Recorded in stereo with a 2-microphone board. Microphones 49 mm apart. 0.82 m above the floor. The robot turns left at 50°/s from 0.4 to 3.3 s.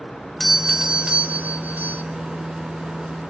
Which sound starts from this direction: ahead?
A doorbell, at 0.4 s.